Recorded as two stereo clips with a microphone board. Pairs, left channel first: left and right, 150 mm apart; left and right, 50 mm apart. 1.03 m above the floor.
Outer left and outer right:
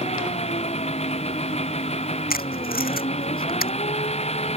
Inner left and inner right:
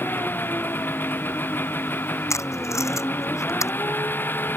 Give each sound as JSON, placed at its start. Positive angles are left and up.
{"t": 0.0, "sound": "an engine running", "side_deg": 45}
{"t": 2.3, "sound": "tape being pulled", "side_deg": 85}